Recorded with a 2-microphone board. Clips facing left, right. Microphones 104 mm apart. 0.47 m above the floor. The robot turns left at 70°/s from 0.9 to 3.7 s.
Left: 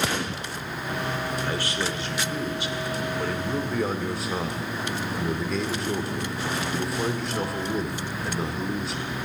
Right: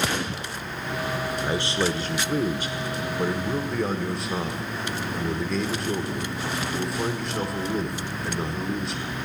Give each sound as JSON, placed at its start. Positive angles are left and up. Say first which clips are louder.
{"t": 1.4, "sound": "a man speaking", "louder": "right 3 dB", "azimuth_deg": -20, "distance_m": 0.9}